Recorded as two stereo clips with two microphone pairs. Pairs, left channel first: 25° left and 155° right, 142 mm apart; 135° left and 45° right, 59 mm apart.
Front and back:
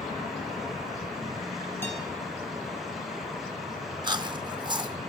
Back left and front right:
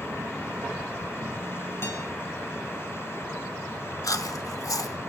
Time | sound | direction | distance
1.8 | a guitar | 95° left | 3.5 m
4.0 | chewing | 145° left | 0.8 m